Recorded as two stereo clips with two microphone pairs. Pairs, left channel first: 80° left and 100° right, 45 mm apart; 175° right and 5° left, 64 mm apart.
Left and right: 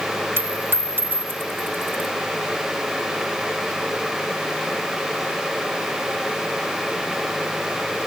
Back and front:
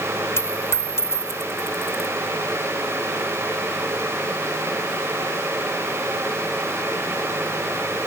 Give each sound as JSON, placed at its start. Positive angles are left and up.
{"t": 0.4, "sound": "a dropped coin", "azimuth_deg": -135}